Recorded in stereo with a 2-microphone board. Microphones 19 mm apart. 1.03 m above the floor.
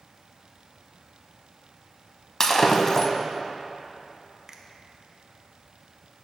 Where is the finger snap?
25° right (ahead or behind), 0.8 m.